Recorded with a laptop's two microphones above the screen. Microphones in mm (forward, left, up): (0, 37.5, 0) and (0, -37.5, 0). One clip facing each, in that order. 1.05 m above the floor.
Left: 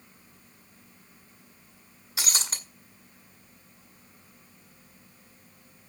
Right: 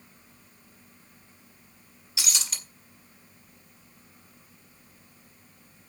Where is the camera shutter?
No camera shutter in this recording.